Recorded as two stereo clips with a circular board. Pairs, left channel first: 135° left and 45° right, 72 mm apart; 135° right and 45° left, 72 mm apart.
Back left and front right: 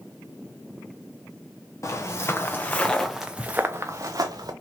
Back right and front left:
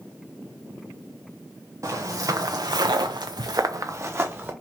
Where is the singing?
I don't hear singing.